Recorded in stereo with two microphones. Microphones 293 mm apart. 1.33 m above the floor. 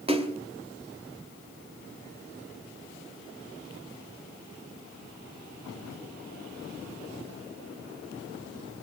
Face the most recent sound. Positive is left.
turn(degrees=-20)  # may be behind; listen again after turning